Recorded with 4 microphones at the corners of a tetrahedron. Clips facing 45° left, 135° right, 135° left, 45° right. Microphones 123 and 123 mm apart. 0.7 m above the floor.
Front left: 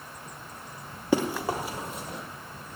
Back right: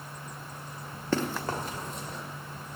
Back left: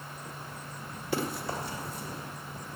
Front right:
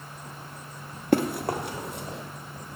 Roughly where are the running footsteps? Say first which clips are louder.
Front left 4 dB, front right 9 dB; ahead right.